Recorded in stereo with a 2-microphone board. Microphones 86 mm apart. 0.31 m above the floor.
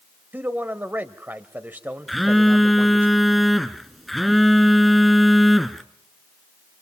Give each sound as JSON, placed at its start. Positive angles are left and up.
{"t": 0.3, "sound": "a man speaking", "side_deg": -25, "distance_m": 1.3}
{"t": 2.1, "sound": "a phone buzzing", "side_deg": 0, "distance_m": 1.0}